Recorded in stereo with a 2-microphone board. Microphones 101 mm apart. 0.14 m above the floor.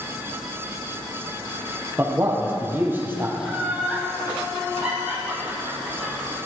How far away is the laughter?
About 7 m.